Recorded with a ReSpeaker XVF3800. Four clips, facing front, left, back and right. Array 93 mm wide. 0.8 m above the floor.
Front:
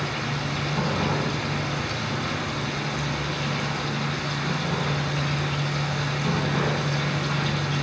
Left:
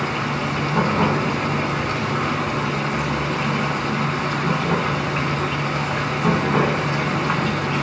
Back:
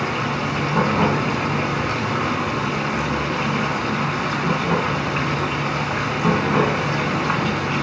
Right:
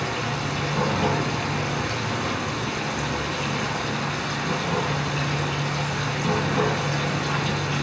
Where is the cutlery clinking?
I don't hear cutlery clinking.